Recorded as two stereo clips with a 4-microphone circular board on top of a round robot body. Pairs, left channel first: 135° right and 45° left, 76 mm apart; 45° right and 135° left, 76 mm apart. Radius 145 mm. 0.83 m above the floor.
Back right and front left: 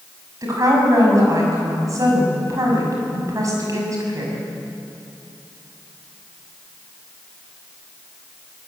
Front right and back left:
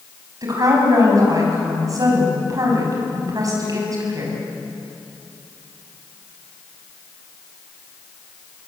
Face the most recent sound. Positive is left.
turn(degrees=90)